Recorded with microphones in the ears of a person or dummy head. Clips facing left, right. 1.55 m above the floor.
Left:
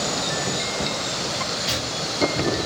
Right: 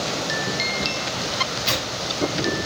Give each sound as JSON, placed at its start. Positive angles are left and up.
{"t": 1.7, "sound": "tearing paper", "side_deg": -70, "distance_m": 3.0}